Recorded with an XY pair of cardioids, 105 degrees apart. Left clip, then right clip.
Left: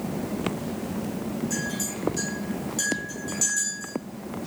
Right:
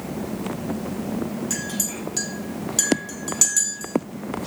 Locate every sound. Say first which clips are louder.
1.5 s a clink: right 2 dB; 60° right, 1.8 m